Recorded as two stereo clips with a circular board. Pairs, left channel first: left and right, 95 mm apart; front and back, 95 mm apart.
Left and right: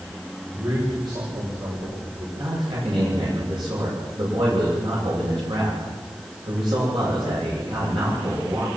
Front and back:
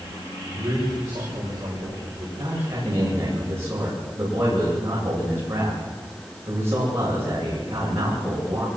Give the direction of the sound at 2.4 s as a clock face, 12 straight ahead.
4 o'clock.